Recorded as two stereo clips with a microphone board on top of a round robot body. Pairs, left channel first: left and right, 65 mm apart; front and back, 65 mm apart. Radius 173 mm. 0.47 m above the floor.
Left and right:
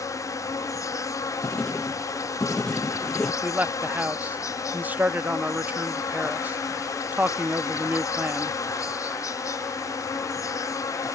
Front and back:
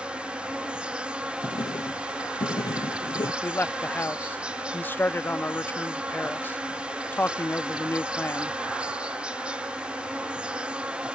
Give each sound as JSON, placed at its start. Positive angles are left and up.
{"t": 0.0, "sound": "an insect", "azimuth_deg": 110}
{"t": 1.4, "sound": "writing", "azimuth_deg": 15}
{"t": 3.4, "sound": "a man speaking", "azimuth_deg": -40}